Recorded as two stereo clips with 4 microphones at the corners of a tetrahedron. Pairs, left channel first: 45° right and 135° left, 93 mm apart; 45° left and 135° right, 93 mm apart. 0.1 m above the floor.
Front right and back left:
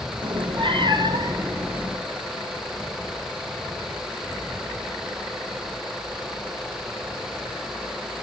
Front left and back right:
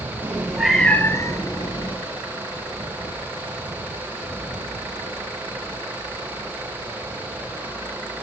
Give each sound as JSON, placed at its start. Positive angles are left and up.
{"t": 0.2, "sound": "a cat meowing", "azimuth_deg": 155, "distance_m": 1.3}